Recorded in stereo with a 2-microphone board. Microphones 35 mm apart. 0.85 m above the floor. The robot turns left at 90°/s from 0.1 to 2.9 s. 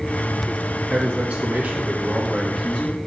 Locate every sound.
0.9 s a man speaking: 55° right, 1.3 m; by 3.0 s 125° left, 1.3 m